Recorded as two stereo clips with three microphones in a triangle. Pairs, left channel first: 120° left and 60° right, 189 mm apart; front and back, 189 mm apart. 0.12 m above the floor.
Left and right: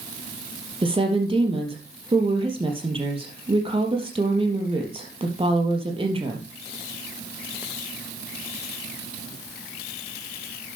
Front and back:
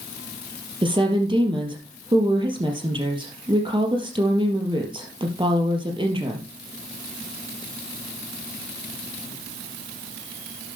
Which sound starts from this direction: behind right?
A woman speaking, at 0.8 s.